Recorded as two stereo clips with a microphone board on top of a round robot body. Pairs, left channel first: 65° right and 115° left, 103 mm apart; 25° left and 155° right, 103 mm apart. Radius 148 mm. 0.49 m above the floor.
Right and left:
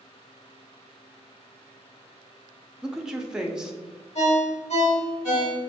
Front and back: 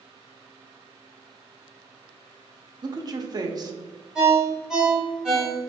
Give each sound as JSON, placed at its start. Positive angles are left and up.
{"t": 2.8, "sound": "a woman speaking", "azimuth_deg": -165, "distance_m": 0.9}
{"t": 4.2, "sound": "a ringtone", "azimuth_deg": -75, "distance_m": 1.9}